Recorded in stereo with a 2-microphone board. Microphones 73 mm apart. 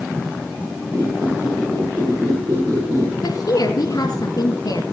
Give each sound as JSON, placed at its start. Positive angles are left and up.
{"t": 0.9, "sound": "a squeak", "side_deg": -35, "distance_m": 7.5}
{"t": 3.2, "sound": "a woman speaking", "side_deg": 55, "distance_m": 2.0}